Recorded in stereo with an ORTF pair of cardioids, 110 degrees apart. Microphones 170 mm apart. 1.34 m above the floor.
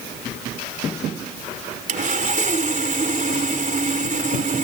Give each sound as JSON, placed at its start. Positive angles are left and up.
{"t": 1.9, "sound": "sawing", "azimuth_deg": -50}